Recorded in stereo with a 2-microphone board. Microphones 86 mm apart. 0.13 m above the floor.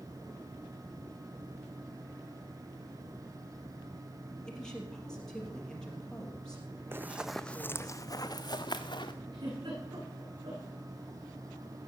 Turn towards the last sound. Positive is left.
turn(degrees=-70)  # may be behind; listen again after turning